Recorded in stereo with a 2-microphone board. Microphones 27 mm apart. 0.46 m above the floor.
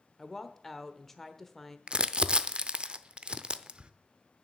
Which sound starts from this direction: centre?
A woman speaking, at 0.2 s.